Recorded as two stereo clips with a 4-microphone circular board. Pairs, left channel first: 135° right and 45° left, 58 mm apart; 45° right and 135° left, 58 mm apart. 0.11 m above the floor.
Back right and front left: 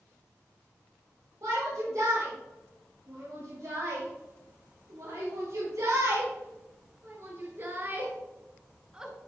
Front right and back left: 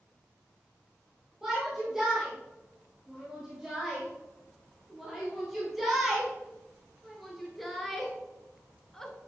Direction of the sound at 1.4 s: 50° left.